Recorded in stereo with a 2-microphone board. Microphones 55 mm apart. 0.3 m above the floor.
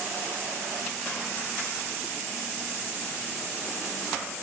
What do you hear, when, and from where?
Only background noise.